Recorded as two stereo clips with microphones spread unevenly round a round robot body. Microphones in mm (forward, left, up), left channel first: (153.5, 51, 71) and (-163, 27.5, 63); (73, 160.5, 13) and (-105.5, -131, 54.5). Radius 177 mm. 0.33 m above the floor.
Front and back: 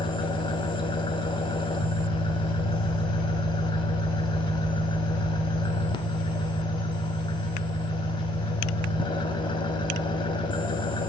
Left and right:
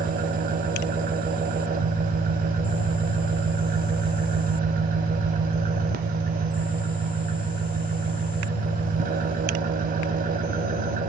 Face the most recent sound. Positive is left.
turn(degrees=-65)